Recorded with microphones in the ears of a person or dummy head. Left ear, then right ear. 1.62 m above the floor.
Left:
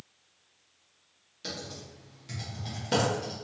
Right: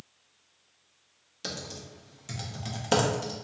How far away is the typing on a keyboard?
About 0.6 m.